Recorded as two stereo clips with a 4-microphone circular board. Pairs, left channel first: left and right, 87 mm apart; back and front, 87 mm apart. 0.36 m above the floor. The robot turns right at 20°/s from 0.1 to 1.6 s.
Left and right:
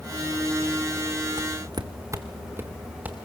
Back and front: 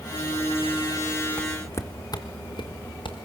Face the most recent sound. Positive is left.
turn(degrees=-165)